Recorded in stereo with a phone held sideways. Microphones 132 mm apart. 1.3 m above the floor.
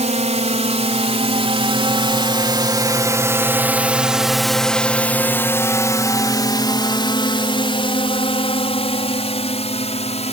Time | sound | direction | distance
0.0 | a drone | 60° right (ahead or behind) | ?